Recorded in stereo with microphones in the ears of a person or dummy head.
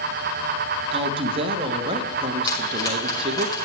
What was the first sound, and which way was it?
A woman speaking, 30° right (ahead or behind).